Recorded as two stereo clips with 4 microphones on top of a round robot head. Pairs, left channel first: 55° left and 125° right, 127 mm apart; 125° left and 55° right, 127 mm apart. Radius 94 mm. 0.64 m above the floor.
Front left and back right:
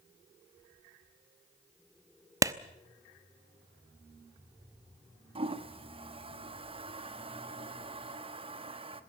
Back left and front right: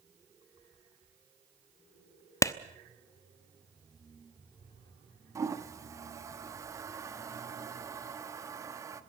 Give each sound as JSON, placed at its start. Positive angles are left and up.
{"t": 2.4, "sound": "a clap", "azimuth_deg": 180, "distance_m": 0.9}
{"t": 5.3, "sound": "a toilet flushing", "azimuth_deg": -110, "distance_m": 1.3}